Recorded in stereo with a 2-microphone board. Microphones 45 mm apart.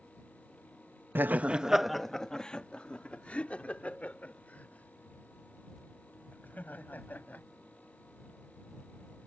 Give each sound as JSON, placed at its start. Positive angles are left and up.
{"t": 1.1, "sound": "laughter", "side_deg": -45}